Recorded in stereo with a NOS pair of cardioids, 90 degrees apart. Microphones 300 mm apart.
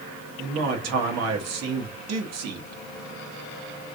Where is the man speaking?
65° right, 1.4 m.